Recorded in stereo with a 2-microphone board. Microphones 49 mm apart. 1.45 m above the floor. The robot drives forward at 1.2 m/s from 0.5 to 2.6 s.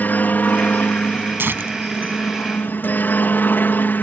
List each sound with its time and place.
0.0 s a helicopter: 40° left (ahead or behind)
1.4 s tearing paper: 50° right (ahead or behind); by 2.8 s 45° right (ahead or behind)